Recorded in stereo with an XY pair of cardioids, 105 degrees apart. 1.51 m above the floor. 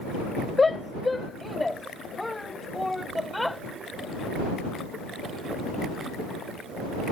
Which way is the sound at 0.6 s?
25° left.